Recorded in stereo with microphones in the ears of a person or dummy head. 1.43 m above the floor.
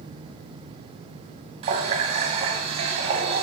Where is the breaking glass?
I don't hear breaking glass.